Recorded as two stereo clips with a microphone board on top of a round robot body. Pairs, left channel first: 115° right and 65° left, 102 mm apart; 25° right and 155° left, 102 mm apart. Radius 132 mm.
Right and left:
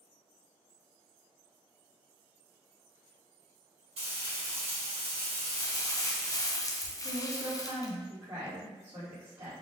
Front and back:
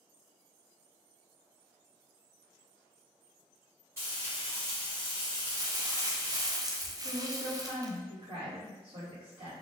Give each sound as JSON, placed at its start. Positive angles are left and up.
{"t": 4.0, "sound": "frying", "azimuth_deg": 90, "distance_m": 1.6}
{"t": 5.5, "sound": "crumpling", "azimuth_deg": -160, "distance_m": 0.6}
{"t": 7.0, "sound": "a woman speaking", "azimuth_deg": 130, "distance_m": 1.5}